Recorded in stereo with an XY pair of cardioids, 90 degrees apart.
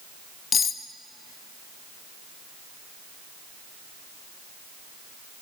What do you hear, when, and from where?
0.5 s cutlery clinking: 55° left, 0.7 m